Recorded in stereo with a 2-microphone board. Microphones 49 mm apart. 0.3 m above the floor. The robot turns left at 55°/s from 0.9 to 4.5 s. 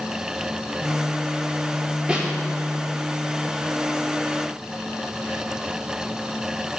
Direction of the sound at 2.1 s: 15° right (ahead or behind).